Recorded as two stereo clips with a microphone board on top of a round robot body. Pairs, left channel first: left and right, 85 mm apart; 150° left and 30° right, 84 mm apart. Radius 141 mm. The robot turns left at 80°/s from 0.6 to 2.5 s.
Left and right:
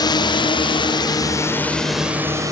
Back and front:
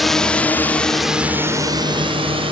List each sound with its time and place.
0.0 s a drone: 60° left; by 2.5 s 40° right